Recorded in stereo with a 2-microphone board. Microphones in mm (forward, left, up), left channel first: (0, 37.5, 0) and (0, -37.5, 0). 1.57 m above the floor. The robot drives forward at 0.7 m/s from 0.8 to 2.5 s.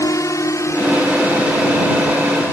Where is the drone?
45° left (ahead or behind); by 2.5 s 30° left (ahead or behind).